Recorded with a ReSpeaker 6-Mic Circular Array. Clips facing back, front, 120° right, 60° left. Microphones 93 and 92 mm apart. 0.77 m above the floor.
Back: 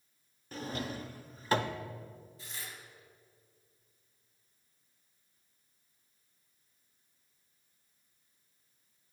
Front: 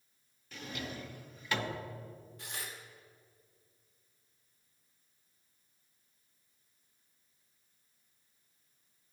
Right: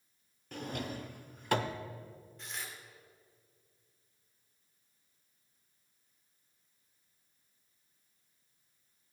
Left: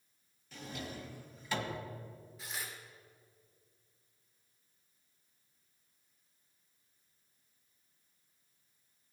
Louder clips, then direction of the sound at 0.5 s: Back 4 dB, right 5 dB; 135° right.